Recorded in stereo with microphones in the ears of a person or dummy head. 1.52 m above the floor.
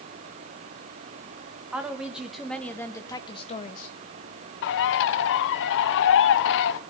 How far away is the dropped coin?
I don't hear a dropped coin.